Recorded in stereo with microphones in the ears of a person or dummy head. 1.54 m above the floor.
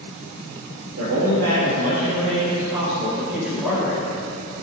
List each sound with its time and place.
1.0 s a man speaking: 80° right, 3.5 m; by 4.1 s 5° left (ahead or behind), 4 m